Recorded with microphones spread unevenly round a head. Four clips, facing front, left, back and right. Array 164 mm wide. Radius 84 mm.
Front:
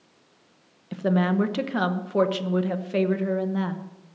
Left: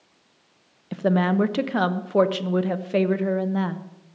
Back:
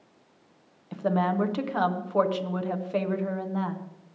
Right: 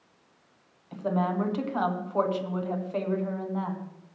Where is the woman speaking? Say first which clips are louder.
Left 6 dB, front 2 dB; 70° left, 1.0 m.